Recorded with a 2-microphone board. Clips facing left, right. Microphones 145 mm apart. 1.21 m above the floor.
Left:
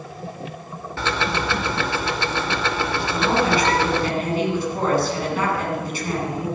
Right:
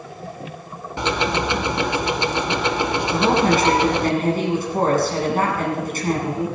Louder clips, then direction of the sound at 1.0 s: Right 3 dB; 20° right (ahead or behind).